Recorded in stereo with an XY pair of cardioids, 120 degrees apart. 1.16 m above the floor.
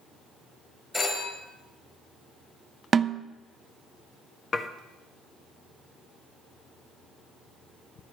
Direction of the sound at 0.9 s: 20° left.